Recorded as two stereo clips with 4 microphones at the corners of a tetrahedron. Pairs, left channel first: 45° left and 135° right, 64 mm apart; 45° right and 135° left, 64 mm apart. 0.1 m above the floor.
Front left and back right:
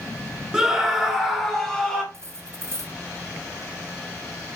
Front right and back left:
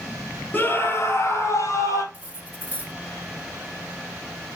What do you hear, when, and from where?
0.5 s a scream: 60° right, 1.8 m; by 2.0 s 35° right, 3 m
2.1 s cutlery clinking: 165° right, 1.4 m